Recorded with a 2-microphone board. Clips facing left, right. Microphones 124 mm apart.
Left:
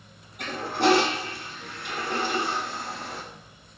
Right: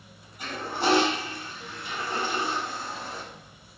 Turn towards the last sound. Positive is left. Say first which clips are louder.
# left 4 dB
turn(degrees=65)  # may be behind; listen again after turning